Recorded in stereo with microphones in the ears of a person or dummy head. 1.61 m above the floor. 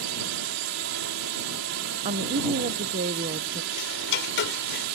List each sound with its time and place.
0.0 s a drone: 70° right (ahead or behind)
2.0 s a woman speaking: 40° right (ahead or behind)
3.7 s ticking: 60° left (ahead or behind)